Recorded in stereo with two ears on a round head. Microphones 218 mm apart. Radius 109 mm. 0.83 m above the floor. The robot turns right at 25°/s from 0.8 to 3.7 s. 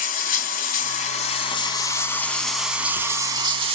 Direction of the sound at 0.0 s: 135° left.